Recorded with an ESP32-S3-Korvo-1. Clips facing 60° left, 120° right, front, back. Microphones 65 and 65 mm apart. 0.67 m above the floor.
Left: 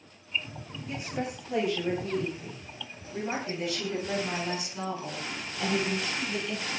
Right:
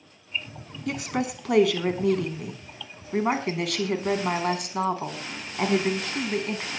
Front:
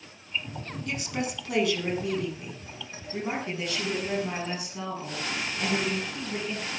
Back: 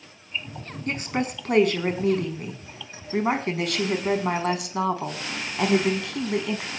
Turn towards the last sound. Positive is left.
turn(degrees=-170)